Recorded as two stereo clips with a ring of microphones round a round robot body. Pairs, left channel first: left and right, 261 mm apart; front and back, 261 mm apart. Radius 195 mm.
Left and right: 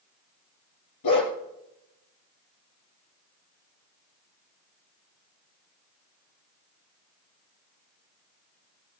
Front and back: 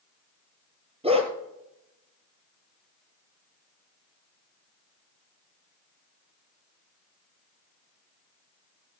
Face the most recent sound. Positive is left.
turn(degrees=110)